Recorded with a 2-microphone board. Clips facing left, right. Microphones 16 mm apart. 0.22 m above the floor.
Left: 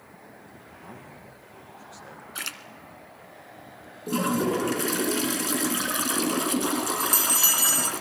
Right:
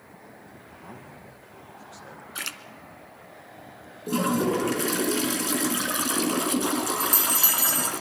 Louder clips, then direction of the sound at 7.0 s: Left 1 dB; 20° left (ahead or behind).